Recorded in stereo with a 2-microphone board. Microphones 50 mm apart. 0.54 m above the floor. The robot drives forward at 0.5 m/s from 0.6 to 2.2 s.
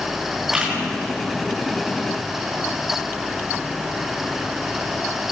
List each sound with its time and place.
0.5 s a camera shutter: 15° right (ahead or behind), 6 m